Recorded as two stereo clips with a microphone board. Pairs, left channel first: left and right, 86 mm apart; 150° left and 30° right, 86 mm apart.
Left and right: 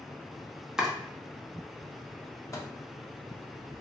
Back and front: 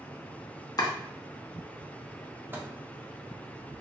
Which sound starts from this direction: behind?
Chopping, at 0.8 s.